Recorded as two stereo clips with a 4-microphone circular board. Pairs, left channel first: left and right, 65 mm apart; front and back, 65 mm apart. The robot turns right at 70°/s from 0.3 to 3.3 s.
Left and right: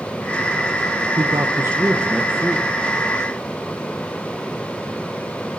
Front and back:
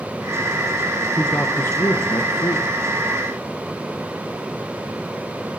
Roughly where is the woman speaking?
Right.